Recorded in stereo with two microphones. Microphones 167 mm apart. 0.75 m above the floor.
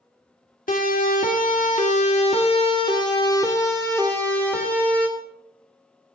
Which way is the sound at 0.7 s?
55° left (ahead or behind).